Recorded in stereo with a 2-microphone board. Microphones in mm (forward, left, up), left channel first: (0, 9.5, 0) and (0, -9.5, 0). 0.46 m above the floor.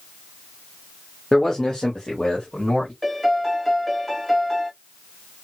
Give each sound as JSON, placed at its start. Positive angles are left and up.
{"t": 1.3, "sound": "a man speaking", "side_deg": 20, "distance_m": 1.0}
{"t": 3.0, "sound": "a piano", "side_deg": 10, "distance_m": 0.9}